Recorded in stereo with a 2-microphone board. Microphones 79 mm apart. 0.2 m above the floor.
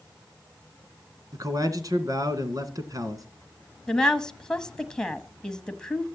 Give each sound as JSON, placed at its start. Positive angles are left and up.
{"t": 1.3, "sound": "a man speaking", "side_deg": -50, "distance_m": 2.0}
{"t": 3.9, "sound": "a woman speaking", "side_deg": 10, "distance_m": 1.1}